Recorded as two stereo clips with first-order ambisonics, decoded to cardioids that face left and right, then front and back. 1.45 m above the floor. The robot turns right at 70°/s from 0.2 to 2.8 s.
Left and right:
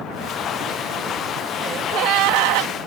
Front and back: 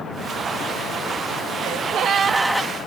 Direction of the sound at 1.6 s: 155° right.